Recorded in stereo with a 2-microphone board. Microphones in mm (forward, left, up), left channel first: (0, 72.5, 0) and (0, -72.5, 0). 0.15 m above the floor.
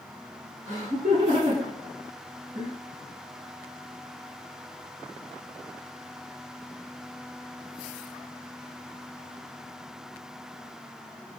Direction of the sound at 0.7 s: 60° right (ahead or behind).